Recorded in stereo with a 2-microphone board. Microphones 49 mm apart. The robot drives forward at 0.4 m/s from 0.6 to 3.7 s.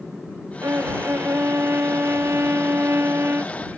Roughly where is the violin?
Right.